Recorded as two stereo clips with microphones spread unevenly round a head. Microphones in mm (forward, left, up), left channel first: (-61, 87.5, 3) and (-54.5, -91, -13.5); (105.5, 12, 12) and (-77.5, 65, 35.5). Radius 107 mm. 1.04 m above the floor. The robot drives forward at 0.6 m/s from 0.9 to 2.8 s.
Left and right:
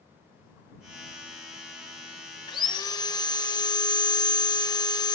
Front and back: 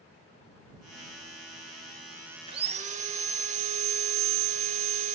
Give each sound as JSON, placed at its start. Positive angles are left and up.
{"t": 2.5, "sound": "sawing", "azimuth_deg": 130, "distance_m": 0.9}